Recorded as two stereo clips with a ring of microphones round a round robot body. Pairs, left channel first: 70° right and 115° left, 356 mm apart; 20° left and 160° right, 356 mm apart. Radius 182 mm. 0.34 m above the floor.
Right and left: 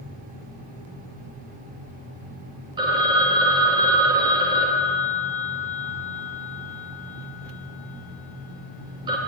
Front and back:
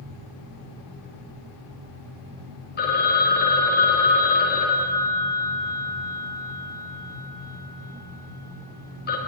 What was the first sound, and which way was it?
A phone ringing, 50° left.